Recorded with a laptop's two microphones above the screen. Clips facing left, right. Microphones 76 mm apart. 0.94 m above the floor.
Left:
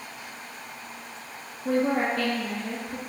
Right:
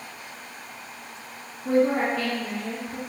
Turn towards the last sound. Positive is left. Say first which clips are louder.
# right 3 dB
turn(degrees=0)  # may be behind; listen again after turning